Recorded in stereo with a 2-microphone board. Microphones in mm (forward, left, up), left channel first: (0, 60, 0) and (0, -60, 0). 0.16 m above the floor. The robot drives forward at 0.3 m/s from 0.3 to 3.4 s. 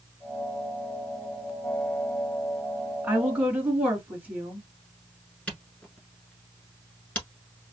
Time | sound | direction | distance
3.0 | a woman speaking | 15° right (ahead or behind) | 2.0 m
5.5 | a camera shutter | 10° left (ahead or behind) | 1.1 m